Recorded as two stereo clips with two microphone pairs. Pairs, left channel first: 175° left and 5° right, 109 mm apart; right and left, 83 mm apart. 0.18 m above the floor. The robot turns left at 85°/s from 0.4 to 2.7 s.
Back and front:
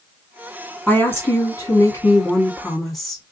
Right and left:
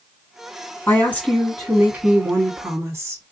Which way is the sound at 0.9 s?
115° right.